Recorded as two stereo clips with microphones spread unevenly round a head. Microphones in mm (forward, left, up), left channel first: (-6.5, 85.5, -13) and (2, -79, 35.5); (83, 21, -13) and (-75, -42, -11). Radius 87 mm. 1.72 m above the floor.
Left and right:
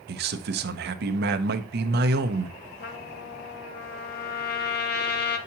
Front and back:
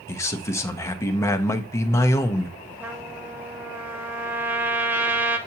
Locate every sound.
0.1 s a man speaking: 55° right, 0.7 m
2.8 s a trumpet: 125° left, 0.8 m